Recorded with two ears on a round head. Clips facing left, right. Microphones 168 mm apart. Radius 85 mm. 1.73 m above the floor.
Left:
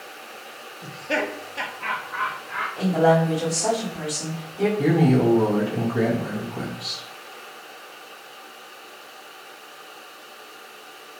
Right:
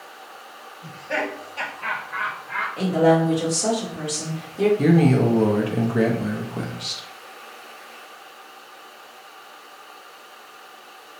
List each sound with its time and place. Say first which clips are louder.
0.8 s laughter: left 1 dB; 45° left (ahead or behind), 0.6 m; by 2.7 s 30° right (ahead or behind), 0.8 m
2.8 s a woman speaking: right 1 dB; 25° right (ahead or behind), 1.2 m
4.8 s a man speaking: left 1 dB; 25° right (ahead or behind), 0.6 m